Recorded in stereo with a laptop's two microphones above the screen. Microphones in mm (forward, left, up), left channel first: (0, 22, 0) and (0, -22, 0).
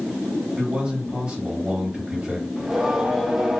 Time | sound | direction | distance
0.6 | a man speaking | 25° right (ahead or behind) | 1.7 m
2.6 | singing | 10° right (ahead or behind) | 0.6 m